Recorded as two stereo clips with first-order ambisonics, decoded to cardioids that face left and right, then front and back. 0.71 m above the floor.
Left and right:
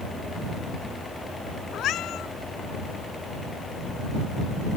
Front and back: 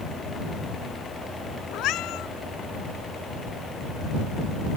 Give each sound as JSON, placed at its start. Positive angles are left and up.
{"t": 1.7, "sound": "a cat meowing", "azimuth_deg": 40}